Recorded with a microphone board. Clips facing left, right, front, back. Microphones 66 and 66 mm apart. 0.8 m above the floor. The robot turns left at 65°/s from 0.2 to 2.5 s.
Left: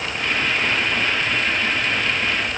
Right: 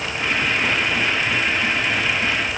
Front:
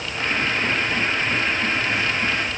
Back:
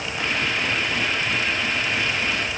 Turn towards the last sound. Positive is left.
No sound to turn to.